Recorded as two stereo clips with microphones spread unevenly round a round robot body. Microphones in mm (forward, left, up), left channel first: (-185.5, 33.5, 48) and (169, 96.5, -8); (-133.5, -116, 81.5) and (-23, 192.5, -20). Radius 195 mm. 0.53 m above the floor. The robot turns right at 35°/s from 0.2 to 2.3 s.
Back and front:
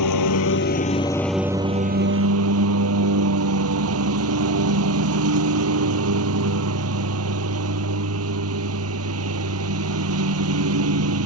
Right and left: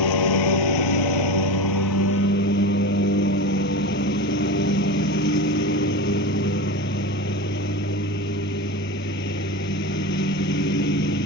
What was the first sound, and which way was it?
A lawn mower, 120° right.